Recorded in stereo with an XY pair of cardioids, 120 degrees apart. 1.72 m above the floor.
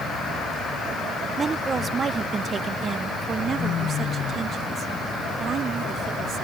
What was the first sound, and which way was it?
A woman speaking, 30° right.